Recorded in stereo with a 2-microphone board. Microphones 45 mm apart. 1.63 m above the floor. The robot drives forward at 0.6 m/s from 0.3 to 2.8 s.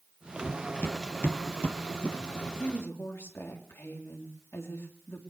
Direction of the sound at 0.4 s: 45° left (ahead or behind).